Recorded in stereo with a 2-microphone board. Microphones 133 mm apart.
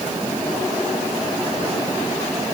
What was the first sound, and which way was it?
Only background noise.